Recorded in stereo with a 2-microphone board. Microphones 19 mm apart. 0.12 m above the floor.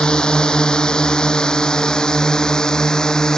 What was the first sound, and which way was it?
A drone, 45° left (ahead or behind).